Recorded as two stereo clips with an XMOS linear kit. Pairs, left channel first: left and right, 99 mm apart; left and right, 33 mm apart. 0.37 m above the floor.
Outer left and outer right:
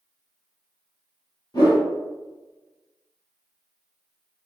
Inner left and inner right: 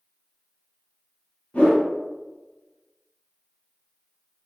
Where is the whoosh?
40° left (ahead or behind), 1.1 m.